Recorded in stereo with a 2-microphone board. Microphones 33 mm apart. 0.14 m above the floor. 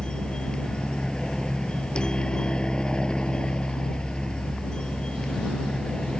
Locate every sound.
0.0 s a helicopter: 25° left (ahead or behind)